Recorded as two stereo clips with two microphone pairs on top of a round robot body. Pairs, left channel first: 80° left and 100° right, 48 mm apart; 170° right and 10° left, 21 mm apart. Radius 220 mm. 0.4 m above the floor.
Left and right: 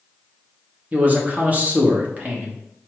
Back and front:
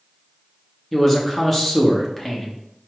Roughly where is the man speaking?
Right.